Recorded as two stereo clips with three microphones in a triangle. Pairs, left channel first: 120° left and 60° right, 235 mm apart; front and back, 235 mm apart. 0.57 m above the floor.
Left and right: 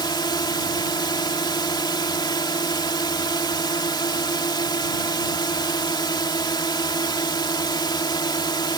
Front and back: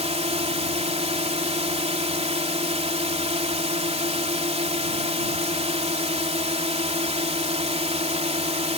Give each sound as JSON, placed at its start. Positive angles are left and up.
{"t": 0.0, "sound": "a drone", "azimuth_deg": 170}